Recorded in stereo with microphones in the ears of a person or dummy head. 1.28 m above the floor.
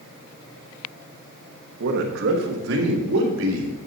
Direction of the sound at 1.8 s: 60° right (ahead or behind).